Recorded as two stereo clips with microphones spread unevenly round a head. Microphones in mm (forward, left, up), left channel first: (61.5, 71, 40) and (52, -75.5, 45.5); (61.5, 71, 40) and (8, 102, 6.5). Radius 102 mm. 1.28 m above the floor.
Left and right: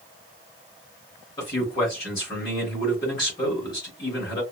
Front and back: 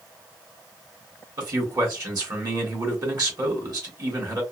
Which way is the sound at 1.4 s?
155° left.